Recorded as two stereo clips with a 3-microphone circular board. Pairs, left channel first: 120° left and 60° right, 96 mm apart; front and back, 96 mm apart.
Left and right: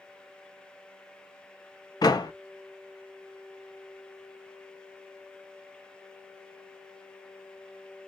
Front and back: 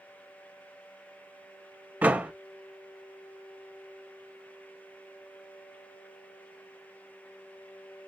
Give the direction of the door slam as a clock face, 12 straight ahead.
8 o'clock.